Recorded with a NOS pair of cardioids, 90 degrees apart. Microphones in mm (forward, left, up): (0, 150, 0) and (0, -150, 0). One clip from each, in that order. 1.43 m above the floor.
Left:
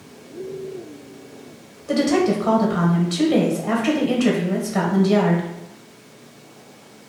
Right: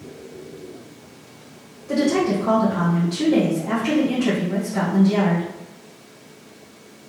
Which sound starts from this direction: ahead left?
A woman speaking, at 1.9 s.